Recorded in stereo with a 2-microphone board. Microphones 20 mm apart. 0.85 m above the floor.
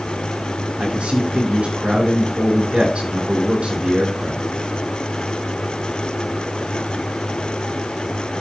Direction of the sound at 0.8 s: 65° right (ahead or behind).